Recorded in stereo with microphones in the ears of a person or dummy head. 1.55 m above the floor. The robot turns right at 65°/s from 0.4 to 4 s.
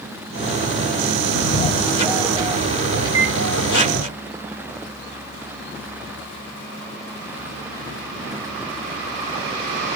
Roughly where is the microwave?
Right.